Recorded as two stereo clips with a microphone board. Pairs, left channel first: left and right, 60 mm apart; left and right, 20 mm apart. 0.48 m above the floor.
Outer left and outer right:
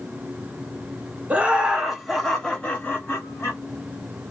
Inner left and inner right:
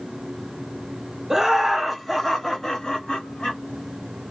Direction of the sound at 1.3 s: 25° right (ahead or behind).